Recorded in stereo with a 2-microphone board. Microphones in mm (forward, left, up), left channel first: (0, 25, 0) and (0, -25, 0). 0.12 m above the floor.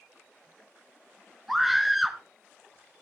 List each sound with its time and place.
1.5 s a scream: 5° right (ahead or behind), 1.1 m